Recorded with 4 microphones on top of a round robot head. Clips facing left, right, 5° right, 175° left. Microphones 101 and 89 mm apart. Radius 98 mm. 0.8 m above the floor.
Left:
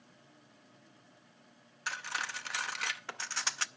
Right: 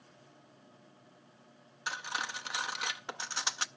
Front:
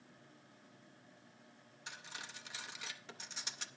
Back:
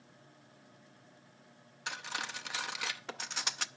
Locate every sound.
1.9 s cutlery clinking: 165° right, 0.6 m